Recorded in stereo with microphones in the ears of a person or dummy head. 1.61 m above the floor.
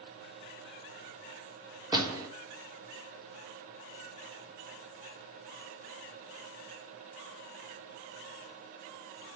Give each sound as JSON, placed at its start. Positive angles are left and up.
{"t": 1.9, "sound": "a door slam", "side_deg": -20, "distance_m": 3.5}